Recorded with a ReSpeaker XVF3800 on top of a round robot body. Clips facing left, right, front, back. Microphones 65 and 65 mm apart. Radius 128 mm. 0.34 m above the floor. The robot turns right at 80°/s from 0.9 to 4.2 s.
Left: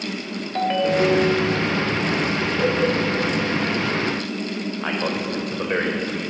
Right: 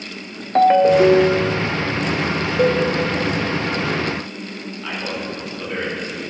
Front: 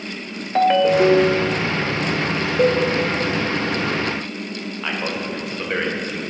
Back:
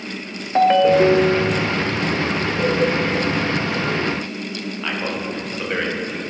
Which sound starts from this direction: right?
A ringtone, at 0.6 s.